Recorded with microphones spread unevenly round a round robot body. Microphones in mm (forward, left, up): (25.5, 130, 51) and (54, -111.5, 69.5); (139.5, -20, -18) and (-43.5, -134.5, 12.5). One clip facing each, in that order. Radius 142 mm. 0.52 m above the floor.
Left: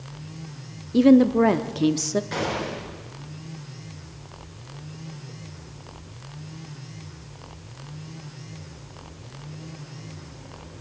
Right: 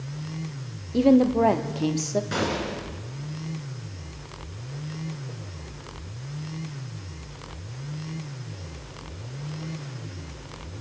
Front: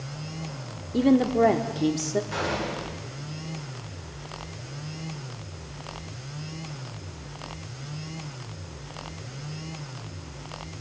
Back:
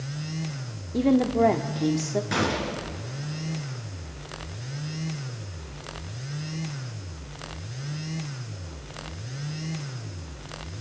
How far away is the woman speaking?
About 1.1 m.